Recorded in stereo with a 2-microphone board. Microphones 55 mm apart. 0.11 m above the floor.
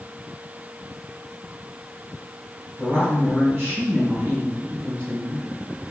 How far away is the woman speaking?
About 1.9 m.